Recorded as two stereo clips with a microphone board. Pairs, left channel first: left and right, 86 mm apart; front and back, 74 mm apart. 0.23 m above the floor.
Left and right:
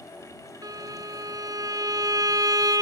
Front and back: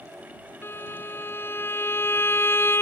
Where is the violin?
55° right.